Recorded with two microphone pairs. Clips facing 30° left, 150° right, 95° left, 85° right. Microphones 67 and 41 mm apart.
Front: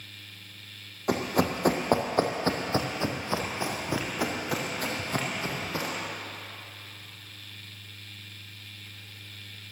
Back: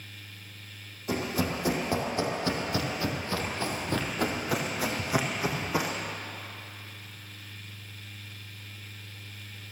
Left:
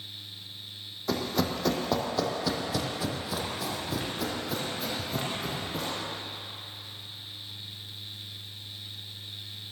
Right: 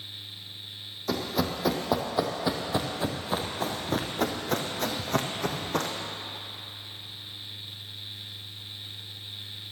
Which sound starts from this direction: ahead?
Running footsteps, at 1.1 s.